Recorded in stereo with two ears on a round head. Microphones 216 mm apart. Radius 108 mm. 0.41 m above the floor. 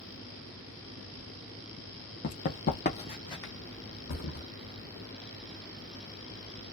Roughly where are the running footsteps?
Left.